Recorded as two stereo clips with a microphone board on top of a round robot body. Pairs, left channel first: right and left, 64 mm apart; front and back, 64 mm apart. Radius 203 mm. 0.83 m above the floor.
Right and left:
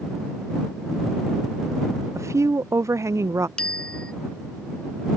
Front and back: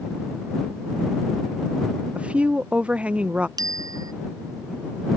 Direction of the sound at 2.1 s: 115° left.